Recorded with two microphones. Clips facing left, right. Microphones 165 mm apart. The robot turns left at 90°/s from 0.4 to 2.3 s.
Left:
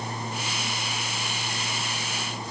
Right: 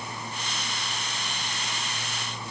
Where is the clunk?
No clunk in this recording.